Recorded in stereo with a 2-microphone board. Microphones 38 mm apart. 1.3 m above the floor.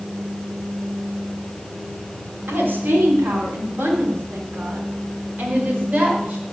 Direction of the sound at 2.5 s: 70° right (ahead or behind).